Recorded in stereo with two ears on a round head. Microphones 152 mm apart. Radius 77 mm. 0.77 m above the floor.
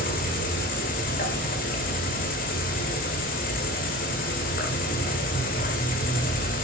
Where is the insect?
50° left (ahead or behind), 1.6 m.